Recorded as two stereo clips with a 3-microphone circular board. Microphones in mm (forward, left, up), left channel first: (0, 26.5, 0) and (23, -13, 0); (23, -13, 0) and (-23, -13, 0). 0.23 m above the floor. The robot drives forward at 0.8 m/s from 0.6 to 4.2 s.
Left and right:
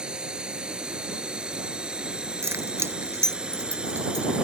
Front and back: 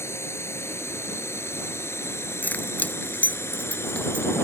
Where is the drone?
10° left.